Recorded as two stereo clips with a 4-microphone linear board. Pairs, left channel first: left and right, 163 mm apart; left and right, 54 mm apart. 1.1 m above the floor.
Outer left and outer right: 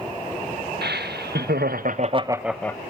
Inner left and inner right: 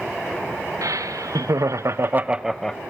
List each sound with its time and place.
0.8 s laughter: 85° right, 1.5 m; by 2.8 s 15° left (ahead or behind), 0.8 m